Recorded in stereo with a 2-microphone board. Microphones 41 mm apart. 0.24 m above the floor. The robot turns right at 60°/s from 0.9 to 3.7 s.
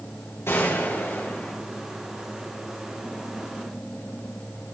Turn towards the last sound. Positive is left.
turn(degrees=-95)